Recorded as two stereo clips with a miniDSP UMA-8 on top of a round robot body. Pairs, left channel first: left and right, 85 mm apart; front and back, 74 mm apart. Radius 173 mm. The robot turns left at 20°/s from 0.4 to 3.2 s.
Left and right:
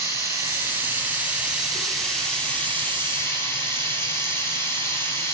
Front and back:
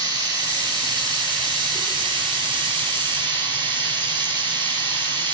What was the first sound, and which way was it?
Running water, 150° right.